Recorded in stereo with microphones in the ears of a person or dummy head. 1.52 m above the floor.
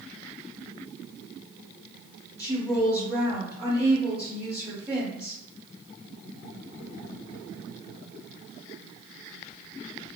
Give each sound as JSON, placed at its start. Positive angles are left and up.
{"t": 2.4, "sound": "a woman speaking", "side_deg": -10, "distance_m": 0.9}